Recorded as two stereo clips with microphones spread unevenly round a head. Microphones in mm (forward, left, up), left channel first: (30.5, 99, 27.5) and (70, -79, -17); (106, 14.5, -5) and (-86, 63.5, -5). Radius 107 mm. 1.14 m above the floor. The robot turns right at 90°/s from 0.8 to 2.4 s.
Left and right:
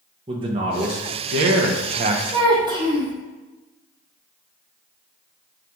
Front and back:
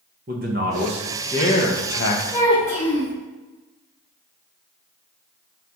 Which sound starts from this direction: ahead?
A child speaking, at 2.3 s.